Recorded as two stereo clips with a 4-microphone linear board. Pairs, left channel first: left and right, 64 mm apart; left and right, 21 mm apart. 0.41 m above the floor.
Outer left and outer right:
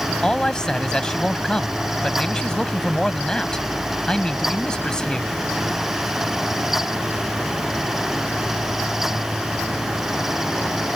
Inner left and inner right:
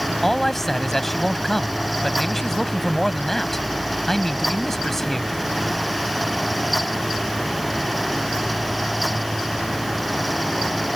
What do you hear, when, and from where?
0.2 s a man speaking: 10° left (ahead or behind)